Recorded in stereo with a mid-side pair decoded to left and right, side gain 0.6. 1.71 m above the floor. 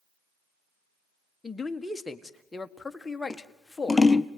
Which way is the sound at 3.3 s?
15° left.